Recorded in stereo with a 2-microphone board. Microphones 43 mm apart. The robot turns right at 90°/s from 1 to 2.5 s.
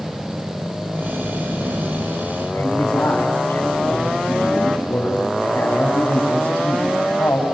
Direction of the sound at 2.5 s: 70° left (ahead or behind).